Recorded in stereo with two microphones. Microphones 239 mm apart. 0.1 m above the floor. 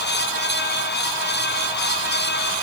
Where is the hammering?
No hammering in this recording.